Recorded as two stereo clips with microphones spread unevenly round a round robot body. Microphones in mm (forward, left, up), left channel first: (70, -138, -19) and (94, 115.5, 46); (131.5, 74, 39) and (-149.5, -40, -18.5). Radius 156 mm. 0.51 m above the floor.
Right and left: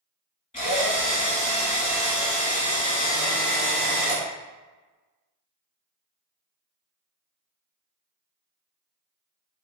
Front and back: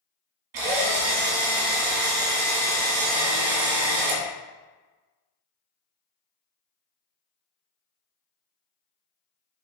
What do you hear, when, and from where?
0.5 s a drill: 165° right, 2.5 m